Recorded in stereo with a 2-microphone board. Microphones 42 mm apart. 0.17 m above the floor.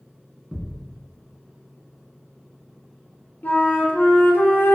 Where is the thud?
15° right (ahead or behind), 0.6 m.